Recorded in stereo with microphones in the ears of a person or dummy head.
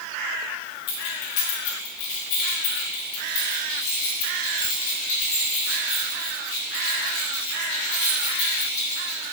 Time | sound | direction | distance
0.9 | keys jangling | 35° left (ahead or behind) | 1.1 m